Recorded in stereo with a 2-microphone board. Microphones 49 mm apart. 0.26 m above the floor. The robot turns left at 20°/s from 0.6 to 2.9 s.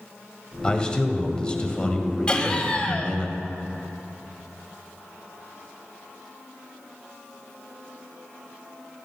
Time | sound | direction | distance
0.6 | a man speaking | 20° left (ahead or behind) | 1.5 m
2.3 | laughter | 20° left (ahead or behind) | 1.4 m